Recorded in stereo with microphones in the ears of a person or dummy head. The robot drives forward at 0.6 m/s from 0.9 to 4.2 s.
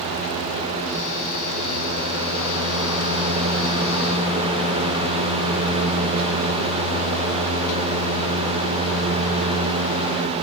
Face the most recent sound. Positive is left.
No sound to turn to.